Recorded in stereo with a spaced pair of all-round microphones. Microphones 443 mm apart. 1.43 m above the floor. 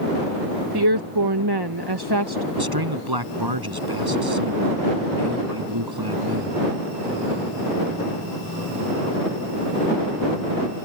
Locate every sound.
0.7 s a woman speaking: 60° right (ahead or behind)
2.5 s a man speaking: 55° right (ahead or behind)